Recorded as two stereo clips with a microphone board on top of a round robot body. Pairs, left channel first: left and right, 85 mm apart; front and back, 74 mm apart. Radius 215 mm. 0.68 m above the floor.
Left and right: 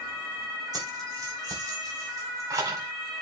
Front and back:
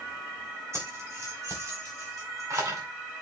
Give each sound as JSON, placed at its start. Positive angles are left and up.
{"t": 0.7, "sound": "keys jangling", "azimuth_deg": -130, "distance_m": 4.0}